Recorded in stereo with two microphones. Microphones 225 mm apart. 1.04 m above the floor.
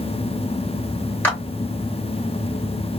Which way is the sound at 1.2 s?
10° left (ahead or behind).